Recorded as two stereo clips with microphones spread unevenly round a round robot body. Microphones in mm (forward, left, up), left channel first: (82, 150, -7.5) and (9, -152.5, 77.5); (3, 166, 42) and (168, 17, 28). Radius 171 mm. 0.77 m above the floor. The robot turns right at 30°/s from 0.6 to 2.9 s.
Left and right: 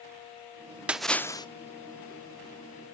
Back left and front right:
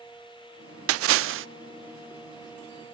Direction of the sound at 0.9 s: 20° right.